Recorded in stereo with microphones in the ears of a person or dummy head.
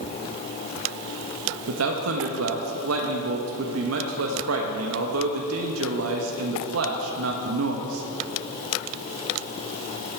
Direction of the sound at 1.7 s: 85° right.